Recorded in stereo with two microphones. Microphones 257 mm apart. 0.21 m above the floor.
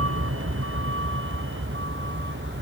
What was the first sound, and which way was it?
A vehicle, 55° right (ahead or behind).